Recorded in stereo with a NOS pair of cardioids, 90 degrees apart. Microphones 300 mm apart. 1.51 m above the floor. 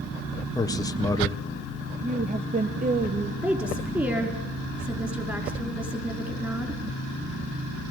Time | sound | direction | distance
0.6 | a man speaking | 10° left | 1.5 m
2.0 | a woman speaking | 30° right | 1.5 m
3.4 | a woman speaking | 10° right | 4.5 m